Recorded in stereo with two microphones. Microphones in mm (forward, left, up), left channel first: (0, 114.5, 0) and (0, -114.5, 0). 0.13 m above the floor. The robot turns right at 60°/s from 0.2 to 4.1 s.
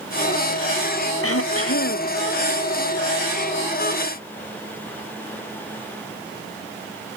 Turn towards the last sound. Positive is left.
turn(degrees=-110)